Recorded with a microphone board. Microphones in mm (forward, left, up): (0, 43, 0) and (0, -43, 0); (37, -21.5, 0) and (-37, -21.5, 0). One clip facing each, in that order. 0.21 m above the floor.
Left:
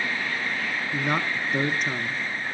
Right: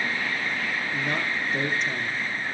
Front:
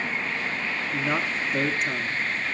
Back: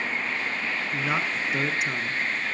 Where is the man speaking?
100° left, 1.7 m.